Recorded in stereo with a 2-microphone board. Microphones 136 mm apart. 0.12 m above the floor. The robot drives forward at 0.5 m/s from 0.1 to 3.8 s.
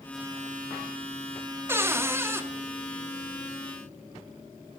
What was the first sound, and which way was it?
A cupboard door, 20° right (ahead or behind).